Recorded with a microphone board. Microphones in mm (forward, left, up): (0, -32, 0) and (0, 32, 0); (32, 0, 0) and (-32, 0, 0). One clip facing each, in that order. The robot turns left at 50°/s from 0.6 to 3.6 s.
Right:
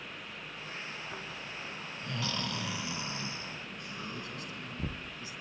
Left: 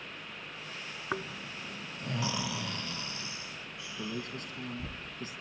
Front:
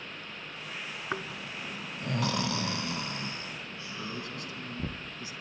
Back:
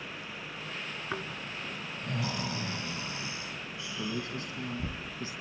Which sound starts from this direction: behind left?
A man speaking, at 4.0 s.